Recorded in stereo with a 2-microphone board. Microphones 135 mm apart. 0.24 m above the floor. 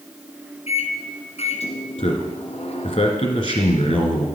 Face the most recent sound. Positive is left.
turn(degrees=45)  # may be behind; listen again after turning